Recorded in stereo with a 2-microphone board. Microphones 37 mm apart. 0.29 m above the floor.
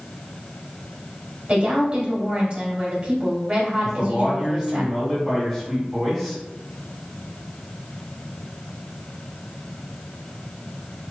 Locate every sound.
1.5 s a woman speaking: 35° right (ahead or behind), 1.8 m
3.8 s a man speaking: centre (ahead or behind), 1.6 m